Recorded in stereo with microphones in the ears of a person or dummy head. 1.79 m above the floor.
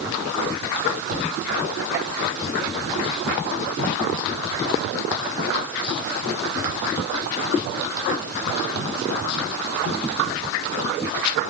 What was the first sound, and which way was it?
Only background noise.